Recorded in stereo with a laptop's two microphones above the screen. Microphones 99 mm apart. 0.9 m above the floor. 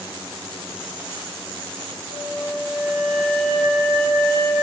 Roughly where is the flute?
Left.